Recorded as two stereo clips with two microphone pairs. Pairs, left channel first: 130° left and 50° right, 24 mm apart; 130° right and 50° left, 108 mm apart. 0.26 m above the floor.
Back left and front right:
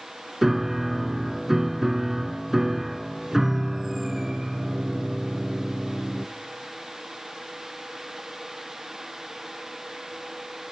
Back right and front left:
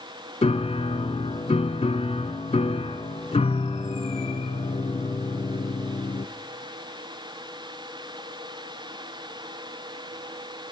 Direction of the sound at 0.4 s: 130° right.